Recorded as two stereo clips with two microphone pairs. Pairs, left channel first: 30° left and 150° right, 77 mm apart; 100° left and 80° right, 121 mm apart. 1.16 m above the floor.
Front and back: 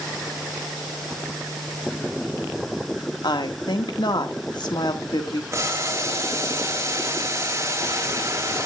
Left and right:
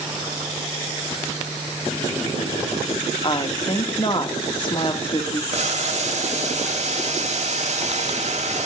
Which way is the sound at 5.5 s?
105° right.